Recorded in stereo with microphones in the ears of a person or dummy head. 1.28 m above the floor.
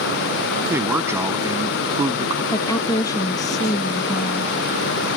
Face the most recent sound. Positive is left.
turn(degrees=25)  # may be behind; listen again after turning